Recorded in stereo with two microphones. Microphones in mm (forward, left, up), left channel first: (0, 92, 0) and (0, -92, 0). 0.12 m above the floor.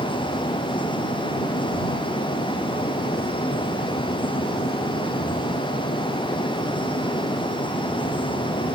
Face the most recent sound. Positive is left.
No sound to turn to.